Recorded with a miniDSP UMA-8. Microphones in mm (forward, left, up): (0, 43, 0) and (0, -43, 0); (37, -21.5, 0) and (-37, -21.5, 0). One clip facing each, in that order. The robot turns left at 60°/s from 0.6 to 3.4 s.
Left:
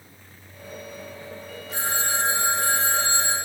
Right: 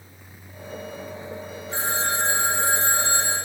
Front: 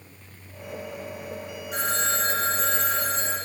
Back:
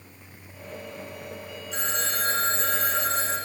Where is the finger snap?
I don't hear a finger snap.